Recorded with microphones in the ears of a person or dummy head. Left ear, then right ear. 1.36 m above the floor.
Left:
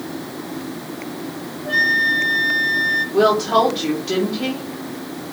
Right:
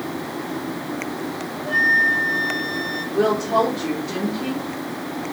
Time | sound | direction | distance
1.6 | a flute | 35° left (ahead or behind) | 5.5 m
3.1 | a woman speaking | 40° left (ahead or behind) | 4 m